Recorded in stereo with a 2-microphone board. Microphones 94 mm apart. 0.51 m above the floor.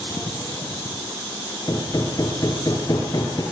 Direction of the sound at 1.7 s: 40° left (ahead or behind).